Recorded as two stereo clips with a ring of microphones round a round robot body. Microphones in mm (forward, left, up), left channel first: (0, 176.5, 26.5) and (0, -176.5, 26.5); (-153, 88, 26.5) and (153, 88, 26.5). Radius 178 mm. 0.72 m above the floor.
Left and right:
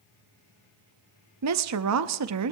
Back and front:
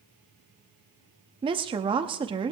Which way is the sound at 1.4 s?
70° right.